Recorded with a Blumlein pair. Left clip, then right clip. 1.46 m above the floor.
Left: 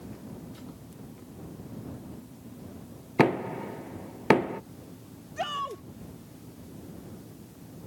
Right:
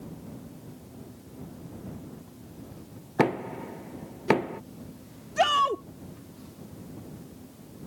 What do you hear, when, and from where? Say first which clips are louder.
3.2 s knocking: left 2 dB; 10° left
5.4 s a shout: right 10 dB; 65° right